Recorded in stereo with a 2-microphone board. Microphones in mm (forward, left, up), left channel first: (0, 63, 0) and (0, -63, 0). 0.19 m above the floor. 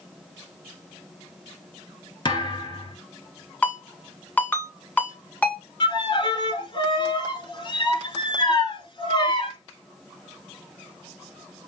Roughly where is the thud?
Left.